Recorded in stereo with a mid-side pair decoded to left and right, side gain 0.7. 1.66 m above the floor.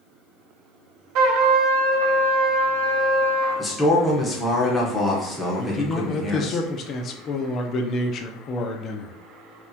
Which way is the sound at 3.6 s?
15° left.